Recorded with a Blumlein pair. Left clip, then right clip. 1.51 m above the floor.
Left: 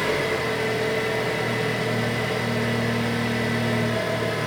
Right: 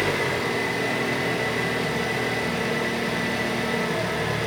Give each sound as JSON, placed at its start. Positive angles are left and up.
{"t": 0.0, "sound": "an engine running", "azimuth_deg": 5, "distance_m": 1.1}